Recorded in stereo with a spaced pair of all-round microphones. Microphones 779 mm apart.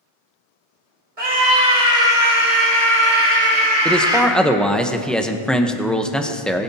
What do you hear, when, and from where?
1.2 s a scream: 45° right (ahead or behind), 2.5 m; by 4.3 s 5° right (ahead or behind), 3.5 m
3.9 s a man speaking: centre (ahead or behind), 0.9 m